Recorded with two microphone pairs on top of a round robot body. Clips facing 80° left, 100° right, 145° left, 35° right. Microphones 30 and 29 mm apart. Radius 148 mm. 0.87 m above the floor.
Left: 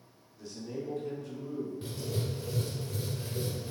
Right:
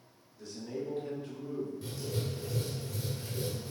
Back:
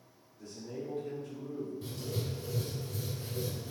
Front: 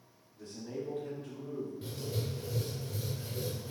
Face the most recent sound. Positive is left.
turn(degrees=15)